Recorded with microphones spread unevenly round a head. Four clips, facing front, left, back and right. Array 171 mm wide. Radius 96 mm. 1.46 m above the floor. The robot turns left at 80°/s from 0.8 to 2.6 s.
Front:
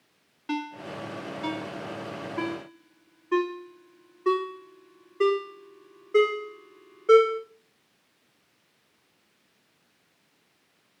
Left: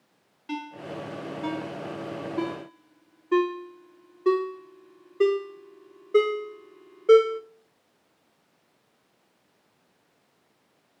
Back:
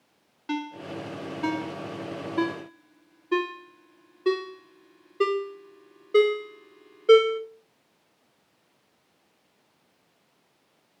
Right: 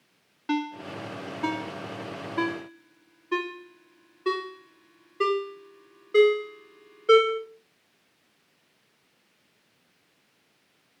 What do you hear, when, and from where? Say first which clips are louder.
0.5 s a ringtone: right 5 dB, even; 85° right, 1.1 m; by 7.4 s 130° left, 1.1 m